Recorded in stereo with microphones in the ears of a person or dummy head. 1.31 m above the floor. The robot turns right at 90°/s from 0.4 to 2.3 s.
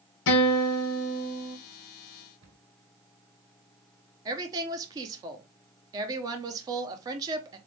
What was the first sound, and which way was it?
A guitar, 70° left.